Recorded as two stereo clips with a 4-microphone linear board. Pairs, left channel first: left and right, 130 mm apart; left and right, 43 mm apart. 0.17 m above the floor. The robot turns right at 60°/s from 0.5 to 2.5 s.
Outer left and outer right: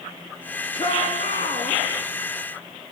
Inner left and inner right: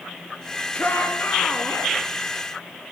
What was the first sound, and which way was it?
A shout, 50° left.